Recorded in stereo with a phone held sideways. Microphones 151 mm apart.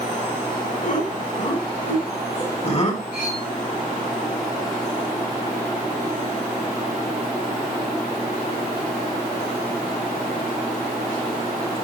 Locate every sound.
0.8 s laughter: 60° left (ahead or behind), 6 m; by 3.0 s 45° left (ahead or behind), 4.5 m
3.1 s cutlery clinking: 75° left (ahead or behind), 7.5 m